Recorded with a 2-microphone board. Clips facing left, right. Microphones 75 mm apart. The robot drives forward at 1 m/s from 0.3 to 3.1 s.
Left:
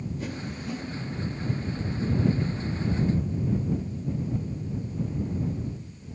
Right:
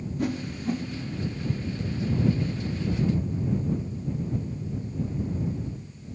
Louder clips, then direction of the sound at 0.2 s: Right 5 dB; 55° right (ahead or behind).